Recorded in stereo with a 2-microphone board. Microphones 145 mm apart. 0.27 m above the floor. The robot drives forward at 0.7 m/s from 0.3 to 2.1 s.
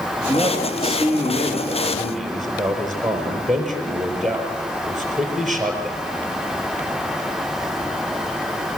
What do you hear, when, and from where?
0.3 s a man speaking: centre (ahead or behind), 4.5 m